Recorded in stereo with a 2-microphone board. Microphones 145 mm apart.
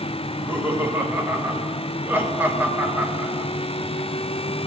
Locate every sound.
0.2 s laughter: 15° right (ahead or behind), 1.4 m